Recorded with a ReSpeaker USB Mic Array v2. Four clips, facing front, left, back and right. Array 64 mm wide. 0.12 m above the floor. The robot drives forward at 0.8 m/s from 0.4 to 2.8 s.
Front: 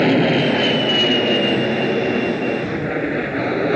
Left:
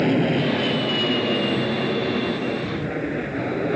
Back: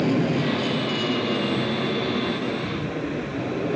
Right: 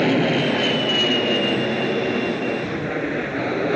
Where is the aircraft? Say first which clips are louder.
Right 1 dB, front 7 dB; 15° right; by 3.8 s 20° right.